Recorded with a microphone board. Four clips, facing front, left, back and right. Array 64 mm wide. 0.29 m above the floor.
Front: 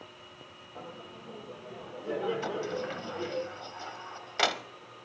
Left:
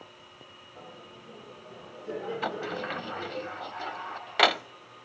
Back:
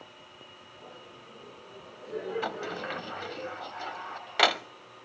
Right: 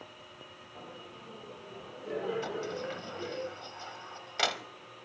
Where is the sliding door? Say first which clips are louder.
Left 4 dB, front 1 dB; 110° left, 0.5 m.